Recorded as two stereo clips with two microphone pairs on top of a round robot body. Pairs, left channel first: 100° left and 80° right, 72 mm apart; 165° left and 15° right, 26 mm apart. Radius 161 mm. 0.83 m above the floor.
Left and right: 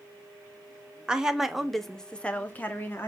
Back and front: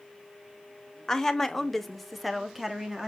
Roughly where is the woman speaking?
Behind right.